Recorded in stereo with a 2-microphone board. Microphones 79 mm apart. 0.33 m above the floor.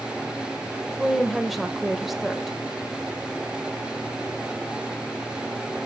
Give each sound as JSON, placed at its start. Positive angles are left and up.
{"t": 1.0, "sound": "a woman speaking", "side_deg": 0, "distance_m": 0.9}